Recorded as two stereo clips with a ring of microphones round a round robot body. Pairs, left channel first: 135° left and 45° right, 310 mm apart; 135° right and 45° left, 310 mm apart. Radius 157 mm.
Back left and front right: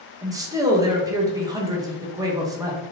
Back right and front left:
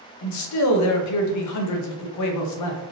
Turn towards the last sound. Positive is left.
turn(degrees=-120)